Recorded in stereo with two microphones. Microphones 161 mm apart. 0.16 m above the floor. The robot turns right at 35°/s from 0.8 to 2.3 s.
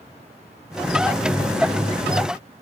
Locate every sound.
Only background noise.